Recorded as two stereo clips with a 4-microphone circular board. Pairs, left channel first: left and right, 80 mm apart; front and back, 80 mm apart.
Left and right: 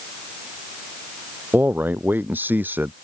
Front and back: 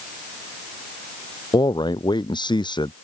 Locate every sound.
1.5 s a man speaking: 25° right